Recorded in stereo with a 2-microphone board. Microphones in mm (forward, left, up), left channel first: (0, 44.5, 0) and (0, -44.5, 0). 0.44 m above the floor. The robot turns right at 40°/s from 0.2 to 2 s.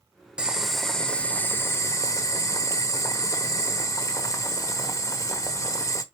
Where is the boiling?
15° right, 0.8 m; by 6.0 s 50° left, 0.8 m.